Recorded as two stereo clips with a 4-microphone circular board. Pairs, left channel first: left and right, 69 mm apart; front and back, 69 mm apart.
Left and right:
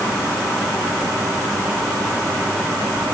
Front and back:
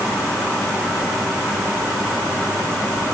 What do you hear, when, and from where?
Only background noise.